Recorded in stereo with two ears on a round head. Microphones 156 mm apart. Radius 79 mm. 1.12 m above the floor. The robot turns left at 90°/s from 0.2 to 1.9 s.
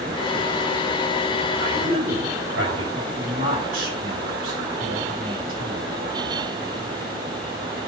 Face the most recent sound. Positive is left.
turn(degrees=-50)  # may be behind; listen again after turning